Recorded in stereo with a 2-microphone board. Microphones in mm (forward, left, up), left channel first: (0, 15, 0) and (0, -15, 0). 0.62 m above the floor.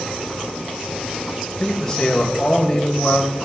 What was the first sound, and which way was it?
A man speaking, 15° left (ahead or behind).